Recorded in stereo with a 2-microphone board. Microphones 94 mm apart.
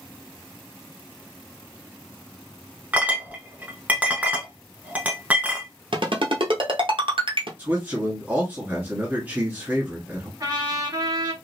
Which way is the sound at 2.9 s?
15° right (ahead or behind).